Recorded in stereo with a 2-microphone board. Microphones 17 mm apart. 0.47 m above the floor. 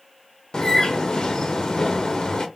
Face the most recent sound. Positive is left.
turn(degrees=50)  # may be behind; listen again after turning